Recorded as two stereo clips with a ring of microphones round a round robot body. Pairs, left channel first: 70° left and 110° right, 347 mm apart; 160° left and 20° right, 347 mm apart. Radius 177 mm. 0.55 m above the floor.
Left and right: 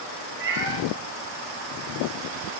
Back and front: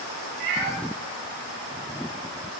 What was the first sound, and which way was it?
A cat meowing, 55° right.